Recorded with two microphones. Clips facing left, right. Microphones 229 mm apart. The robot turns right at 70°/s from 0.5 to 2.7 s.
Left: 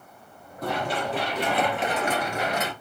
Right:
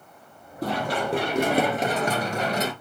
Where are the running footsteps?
30° right (ahead or behind), 2.5 m; by 2.7 s 40° right (ahead or behind), 1.6 m.